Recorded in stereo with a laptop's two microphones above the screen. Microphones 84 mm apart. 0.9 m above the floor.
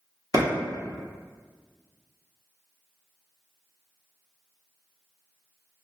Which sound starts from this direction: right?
A clap, at 0.3 s.